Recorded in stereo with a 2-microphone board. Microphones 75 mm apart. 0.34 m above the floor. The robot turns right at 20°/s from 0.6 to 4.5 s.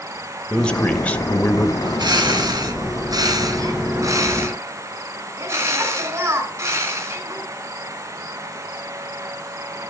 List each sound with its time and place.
0.5 s a man speaking: 15° left (ahead or behind), 1.0 m; by 1.7 s 20° left (ahead or behind), 1.0 m
1.8 s a bird: 90° right, 3 m; by 7.4 s 40° right, 3 m